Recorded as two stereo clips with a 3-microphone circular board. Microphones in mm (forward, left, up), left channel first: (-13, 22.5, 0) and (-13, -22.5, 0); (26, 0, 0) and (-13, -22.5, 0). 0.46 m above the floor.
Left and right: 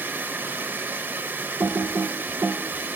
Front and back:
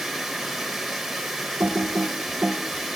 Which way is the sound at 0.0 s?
65° right.